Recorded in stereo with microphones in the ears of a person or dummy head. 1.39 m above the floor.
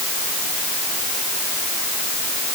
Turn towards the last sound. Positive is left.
No sound to turn to.